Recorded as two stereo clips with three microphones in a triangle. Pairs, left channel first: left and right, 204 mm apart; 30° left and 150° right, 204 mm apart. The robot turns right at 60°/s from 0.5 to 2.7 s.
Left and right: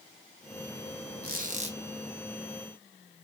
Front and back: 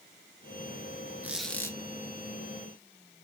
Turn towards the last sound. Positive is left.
turn(degrees=20)